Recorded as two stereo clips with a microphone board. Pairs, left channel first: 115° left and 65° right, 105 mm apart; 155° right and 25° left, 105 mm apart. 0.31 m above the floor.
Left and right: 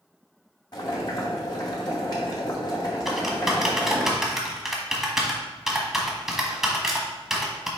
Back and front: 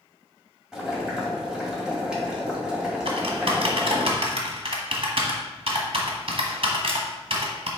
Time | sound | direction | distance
0.7 | boiling | 100° left | 1.9 m
3.0 | typing on a keyboard | 20° left | 1.2 m